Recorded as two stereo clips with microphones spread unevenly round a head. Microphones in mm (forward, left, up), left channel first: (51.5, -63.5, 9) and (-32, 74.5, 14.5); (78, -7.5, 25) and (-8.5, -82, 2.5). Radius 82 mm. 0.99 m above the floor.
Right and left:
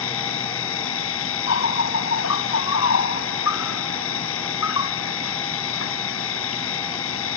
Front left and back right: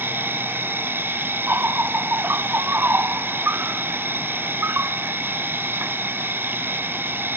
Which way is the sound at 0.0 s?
65° right.